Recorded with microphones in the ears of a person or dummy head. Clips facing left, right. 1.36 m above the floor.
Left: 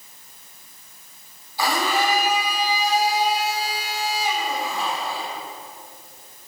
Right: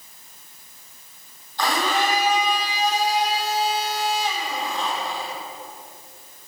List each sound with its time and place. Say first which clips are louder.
1.6 s a blender: even; 10° left (ahead or behind), 2 m